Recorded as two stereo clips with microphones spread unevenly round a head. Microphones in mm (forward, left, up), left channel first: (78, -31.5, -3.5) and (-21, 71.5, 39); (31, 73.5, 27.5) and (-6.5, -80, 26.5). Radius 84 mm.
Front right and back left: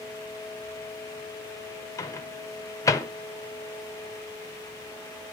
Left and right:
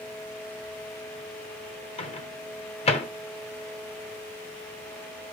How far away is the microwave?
About 0.9 m.